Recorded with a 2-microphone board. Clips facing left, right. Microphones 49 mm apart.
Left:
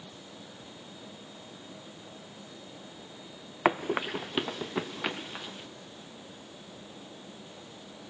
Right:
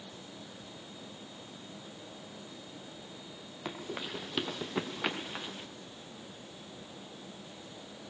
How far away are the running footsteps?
About 0.6 m.